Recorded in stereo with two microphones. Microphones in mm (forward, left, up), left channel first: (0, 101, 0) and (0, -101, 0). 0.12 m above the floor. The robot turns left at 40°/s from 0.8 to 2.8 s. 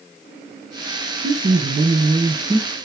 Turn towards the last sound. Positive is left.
turn(degrees=-165)